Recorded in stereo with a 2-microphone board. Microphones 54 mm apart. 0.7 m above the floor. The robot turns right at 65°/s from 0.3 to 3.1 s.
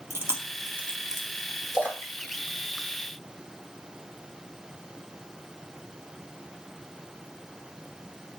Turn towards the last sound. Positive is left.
turn(degrees=60)  # may be behind; listen again after turning